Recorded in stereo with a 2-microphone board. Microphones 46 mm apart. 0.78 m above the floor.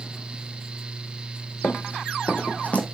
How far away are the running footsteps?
About 1.6 m.